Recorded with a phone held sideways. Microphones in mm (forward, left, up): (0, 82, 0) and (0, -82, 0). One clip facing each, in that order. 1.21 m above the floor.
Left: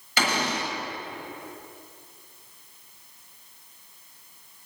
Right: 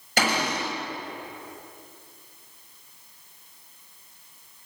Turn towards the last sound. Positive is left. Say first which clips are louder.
# right 1 dB
turn(degrees=-50)  # may be behind; listen again after turning